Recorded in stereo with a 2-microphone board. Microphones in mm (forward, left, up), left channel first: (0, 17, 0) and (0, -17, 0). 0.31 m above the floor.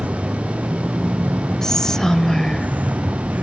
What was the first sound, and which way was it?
A vehicle, 55° right (ahead or behind).